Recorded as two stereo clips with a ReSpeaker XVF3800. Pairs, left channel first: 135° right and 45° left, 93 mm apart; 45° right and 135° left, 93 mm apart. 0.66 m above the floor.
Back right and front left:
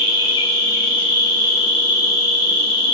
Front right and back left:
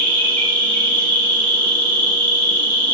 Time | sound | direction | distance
0.0 | an insect | 120° right | 1.1 m